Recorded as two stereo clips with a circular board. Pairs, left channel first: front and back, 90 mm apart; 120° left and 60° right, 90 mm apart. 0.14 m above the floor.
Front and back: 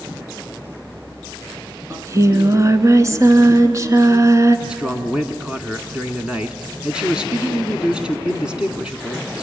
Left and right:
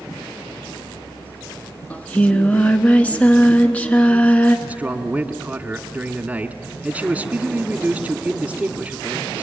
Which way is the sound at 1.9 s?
Straight behind.